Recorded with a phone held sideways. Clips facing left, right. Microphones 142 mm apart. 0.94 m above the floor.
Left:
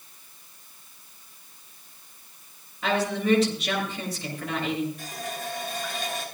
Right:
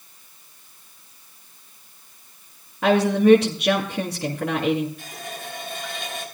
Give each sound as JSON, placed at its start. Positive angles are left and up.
{"t": 2.8, "sound": "a woman speaking", "side_deg": -65, "distance_m": 2.0}
{"t": 5.0, "sound": "a running tap", "side_deg": 40, "distance_m": 6.0}